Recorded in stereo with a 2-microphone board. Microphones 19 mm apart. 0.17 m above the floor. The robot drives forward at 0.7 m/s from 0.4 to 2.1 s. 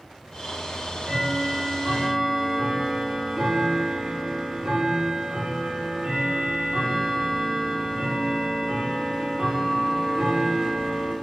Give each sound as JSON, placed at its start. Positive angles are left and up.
{"t": 0.7, "sound": "ticking", "side_deg": -65, "distance_m": 3.5}